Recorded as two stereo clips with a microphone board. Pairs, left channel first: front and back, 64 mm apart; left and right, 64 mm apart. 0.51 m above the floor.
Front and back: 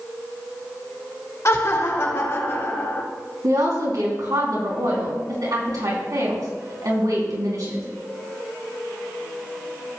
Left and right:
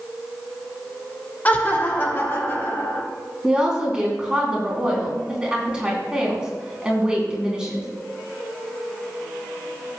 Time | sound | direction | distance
1.4 | laughter | 30° left | 1.4 m
3.4 | a woman speaking | 165° right | 4 m